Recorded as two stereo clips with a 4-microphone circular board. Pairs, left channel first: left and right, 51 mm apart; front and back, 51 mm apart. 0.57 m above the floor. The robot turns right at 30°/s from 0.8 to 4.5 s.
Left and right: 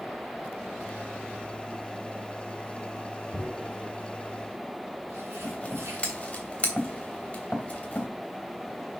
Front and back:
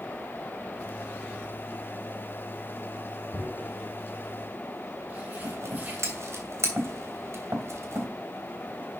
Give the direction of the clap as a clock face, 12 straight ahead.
No clap in this recording.